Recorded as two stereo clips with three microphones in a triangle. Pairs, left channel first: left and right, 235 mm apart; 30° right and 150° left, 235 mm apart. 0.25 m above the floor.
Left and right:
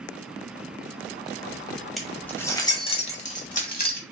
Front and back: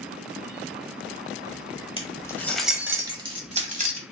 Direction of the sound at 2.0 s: Straight ahead.